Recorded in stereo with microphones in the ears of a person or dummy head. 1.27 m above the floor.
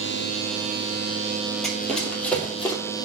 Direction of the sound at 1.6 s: Centre (ahead or behind).